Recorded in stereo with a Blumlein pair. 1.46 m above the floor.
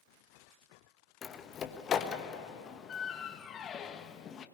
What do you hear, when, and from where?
1.2 s a door slam: 25° left, 1.4 m